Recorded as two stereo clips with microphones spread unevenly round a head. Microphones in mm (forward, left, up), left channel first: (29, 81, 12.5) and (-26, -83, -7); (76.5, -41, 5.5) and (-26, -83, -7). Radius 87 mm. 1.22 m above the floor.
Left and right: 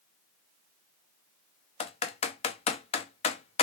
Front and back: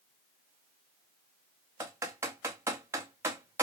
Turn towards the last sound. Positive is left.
turn(degrees=130)